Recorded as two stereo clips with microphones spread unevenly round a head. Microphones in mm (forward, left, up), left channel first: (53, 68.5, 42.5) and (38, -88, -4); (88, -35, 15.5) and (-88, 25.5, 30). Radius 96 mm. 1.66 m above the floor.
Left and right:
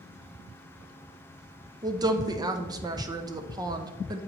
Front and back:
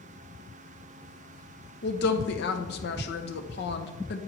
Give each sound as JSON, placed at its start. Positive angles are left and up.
{"t": 1.8, "sound": "a woman speaking", "azimuth_deg": -20, "distance_m": 0.7}